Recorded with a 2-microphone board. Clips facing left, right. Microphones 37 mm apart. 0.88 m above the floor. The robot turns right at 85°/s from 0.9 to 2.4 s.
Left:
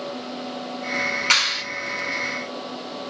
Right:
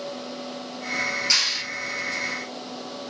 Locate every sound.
1.3 s a clap: 50° left (ahead or behind), 7 m; by 1.6 s 25° left (ahead or behind), 7 m